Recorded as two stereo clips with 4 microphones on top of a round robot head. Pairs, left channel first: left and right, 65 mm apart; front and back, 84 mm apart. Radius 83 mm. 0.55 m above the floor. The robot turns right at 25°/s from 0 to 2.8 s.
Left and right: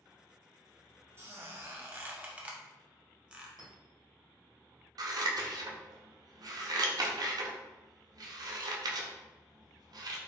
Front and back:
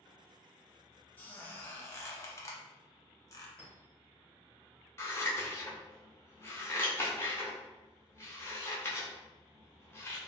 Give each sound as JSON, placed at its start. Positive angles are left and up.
{"t": 1.2, "sound": "a squeak", "azimuth_deg": -60, "distance_m": 0.8}
{"t": 3.6, "sound": "a clink", "azimuth_deg": -80, "distance_m": 1.6}
{"t": 5.0, "sound": "scissors", "azimuth_deg": -65, "distance_m": 0.5}